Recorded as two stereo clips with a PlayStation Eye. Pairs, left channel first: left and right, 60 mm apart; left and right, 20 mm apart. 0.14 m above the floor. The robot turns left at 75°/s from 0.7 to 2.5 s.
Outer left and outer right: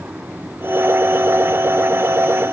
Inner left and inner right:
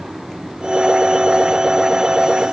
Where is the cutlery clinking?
I don't hear cutlery clinking.